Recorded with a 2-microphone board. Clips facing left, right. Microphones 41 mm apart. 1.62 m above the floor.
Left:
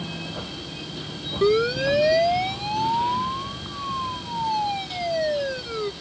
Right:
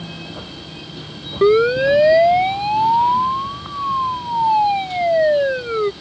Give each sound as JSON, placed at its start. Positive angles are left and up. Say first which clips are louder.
{"t": 1.4, "sound": "a siren", "louder": "right 7 dB", "side_deg": -25}